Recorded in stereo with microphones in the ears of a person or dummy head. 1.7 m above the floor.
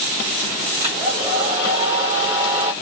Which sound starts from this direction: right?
A hair dryer, at 0.8 s.